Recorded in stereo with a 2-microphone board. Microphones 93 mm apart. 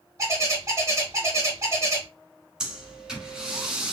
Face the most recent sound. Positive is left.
turn(degrees=-5)  # may be behind; listen again after turning